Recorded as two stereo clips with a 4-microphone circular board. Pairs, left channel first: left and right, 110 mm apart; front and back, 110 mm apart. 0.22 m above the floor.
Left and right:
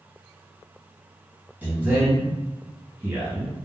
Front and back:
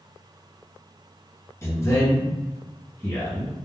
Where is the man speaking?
30° right, 1.8 m.